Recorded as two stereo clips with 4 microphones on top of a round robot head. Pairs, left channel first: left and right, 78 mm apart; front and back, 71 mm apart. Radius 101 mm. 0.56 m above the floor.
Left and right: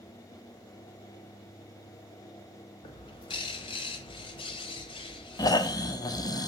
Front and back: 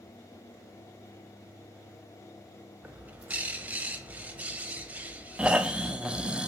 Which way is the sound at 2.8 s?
110° left.